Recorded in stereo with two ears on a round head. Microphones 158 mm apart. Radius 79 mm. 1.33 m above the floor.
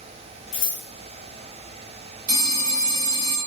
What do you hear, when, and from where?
0.5 s scissors: 75° left (ahead or behind), 1.5 m
2.3 s a phone ringing: 55° right (ahead or behind), 1.3 m